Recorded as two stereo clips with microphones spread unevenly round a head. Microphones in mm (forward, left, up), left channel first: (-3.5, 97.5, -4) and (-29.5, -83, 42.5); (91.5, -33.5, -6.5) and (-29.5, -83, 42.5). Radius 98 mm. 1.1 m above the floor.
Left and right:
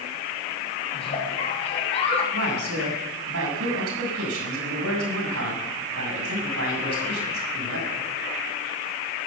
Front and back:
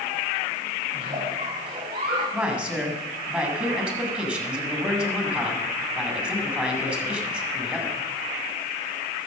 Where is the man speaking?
80° right, 7 m.